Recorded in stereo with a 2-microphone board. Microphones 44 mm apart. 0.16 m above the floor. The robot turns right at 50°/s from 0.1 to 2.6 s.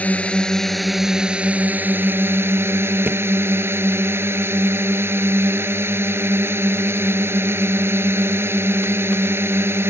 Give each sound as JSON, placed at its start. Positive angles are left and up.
{"t": 0.0, "sound": "a drone", "azimuth_deg": 145}
{"t": 3.1, "sound": "a thud", "side_deg": -45}